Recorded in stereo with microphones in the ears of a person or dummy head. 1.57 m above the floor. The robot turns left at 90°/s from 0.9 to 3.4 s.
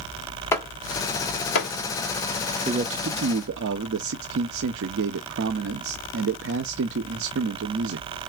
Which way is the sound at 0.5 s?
25° left (ahead or behind).